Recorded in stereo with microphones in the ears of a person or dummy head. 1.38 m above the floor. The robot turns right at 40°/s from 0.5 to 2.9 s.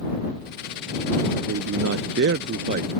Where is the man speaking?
100° right; by 3.0 s 40° right.